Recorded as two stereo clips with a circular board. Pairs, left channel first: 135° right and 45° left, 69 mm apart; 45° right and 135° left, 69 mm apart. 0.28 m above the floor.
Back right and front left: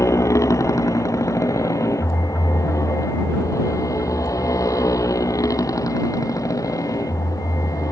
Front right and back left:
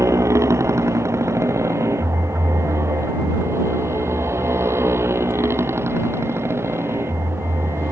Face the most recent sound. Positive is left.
turn(degrees=-170)